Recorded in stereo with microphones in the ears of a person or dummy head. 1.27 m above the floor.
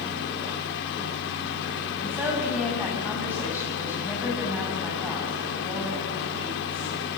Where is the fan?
60° left (ahead or behind), 1.8 m.